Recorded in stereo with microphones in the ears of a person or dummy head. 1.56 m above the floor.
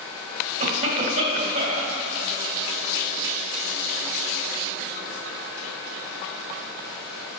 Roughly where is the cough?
Right.